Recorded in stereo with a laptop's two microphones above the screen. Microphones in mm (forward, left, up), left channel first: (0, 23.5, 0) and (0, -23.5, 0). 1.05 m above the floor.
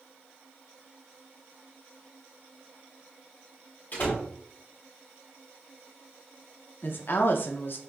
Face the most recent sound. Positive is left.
turn(degrees=50)  # may be behind; listen again after turning